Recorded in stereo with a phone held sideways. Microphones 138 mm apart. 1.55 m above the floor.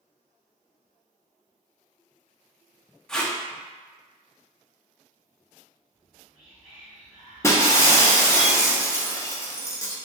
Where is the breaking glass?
20° left (ahead or behind), 0.7 m.